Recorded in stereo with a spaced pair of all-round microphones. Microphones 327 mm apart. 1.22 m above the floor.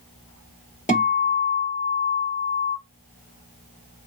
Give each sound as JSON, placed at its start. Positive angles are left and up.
{"t": 0.9, "sound": "a guitar", "side_deg": 20, "distance_m": 2.0}